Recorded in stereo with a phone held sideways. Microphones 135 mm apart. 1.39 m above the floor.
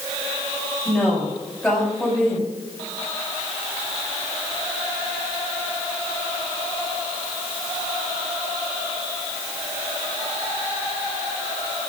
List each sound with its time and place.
0.8 s a woman speaking: 5° left (ahead or behind), 5.5 m